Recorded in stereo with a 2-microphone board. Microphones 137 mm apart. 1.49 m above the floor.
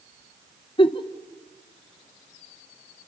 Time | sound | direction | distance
0.8 | a giggle | 40° left (ahead or behind) | 0.9 m